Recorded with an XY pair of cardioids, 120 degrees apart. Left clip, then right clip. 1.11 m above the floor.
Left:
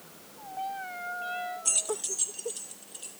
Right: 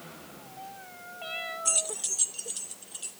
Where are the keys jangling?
Straight ahead, 0.5 m; by 3.1 s 25° right, 2.5 m.